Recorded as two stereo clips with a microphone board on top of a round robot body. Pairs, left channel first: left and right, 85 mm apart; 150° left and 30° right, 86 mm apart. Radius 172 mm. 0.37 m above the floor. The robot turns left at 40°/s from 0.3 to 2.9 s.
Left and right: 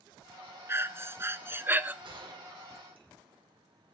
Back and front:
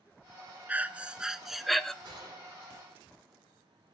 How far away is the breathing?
About 1.1 m.